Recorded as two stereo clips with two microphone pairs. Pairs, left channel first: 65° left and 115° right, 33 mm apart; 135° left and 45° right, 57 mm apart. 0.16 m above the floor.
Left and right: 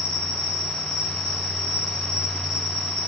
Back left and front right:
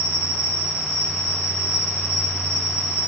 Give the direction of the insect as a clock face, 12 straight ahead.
1 o'clock.